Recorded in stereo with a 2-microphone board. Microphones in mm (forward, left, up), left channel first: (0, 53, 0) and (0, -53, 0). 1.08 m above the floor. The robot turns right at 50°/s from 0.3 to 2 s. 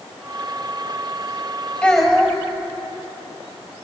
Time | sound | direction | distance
1.8 | a child speaking | 10° left (ahead or behind) | 5 m